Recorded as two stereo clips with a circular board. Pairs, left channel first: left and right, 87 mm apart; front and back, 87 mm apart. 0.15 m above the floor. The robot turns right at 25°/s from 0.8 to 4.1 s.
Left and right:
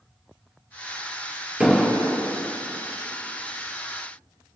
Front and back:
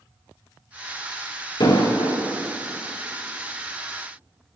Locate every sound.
1.6 s an explosion: 10° right, 2.5 m; by 2.2 s straight ahead, 2.5 m